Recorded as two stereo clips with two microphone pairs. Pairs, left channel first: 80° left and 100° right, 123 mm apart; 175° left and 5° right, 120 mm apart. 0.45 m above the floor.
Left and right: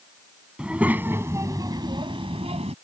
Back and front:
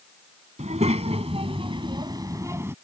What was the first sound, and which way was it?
A child speaking, 20° right.